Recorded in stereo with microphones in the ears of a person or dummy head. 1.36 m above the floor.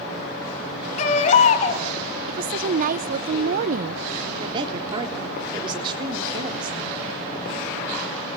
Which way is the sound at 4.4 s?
30° right (ahead or behind).